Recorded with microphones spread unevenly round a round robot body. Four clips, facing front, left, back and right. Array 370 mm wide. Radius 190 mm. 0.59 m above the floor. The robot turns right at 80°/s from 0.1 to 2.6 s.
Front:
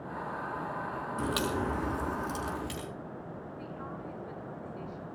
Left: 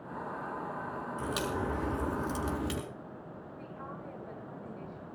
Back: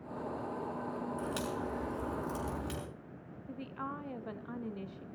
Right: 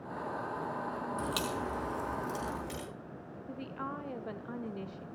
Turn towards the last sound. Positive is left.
turn(degrees=-135)